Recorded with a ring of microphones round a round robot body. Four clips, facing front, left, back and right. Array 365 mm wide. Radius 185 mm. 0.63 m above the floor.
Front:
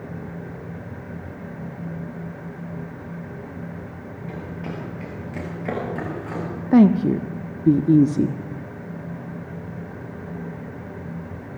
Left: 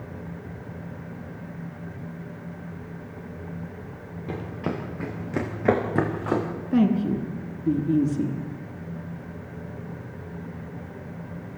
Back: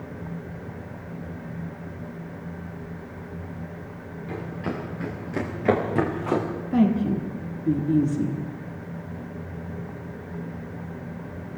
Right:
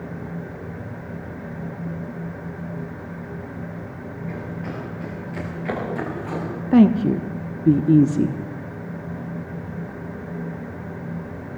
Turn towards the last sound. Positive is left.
turn(degrees=-40)